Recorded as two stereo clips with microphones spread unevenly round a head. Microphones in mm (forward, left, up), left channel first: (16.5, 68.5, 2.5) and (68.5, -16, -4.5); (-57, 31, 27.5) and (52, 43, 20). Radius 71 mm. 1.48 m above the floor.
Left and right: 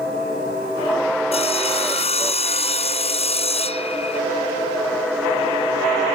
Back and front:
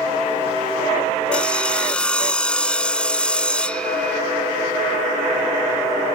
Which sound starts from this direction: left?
Sawing, at 1.3 s.